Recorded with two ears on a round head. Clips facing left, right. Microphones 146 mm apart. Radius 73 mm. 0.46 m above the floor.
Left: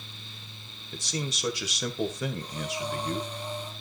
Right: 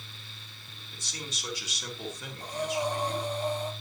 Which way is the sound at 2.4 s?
45° right (ahead or behind).